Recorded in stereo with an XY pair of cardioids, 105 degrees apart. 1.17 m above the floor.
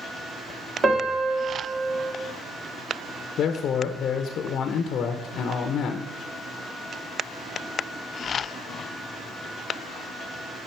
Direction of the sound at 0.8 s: 35° right.